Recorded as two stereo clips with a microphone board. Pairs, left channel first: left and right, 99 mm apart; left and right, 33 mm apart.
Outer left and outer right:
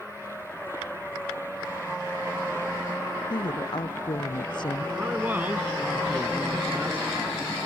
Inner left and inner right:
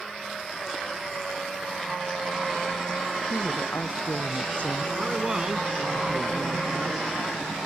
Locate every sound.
3.3 s a woman speaking: 50° left (ahead or behind)
5.0 s a man speaking: 20° right (ahead or behind)